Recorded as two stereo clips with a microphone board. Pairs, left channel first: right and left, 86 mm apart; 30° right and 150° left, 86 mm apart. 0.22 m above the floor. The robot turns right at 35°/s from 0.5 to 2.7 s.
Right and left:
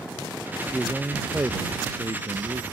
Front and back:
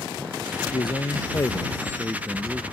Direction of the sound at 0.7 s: Straight ahead.